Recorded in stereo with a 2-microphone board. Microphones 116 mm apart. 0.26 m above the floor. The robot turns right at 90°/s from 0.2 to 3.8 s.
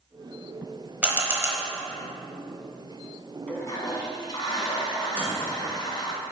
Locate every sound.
1.0 s a camera shutter: 10° right (ahead or behind), 1.0 m; by 1.6 s 25° right (ahead or behind), 1.0 m
3.5 s a toilet flushing: 15° left (ahead or behind), 1.1 m; by 6.2 s 40° left (ahead or behind), 1.1 m
5.2 s a microwave: 10° right (ahead or behind), 2 m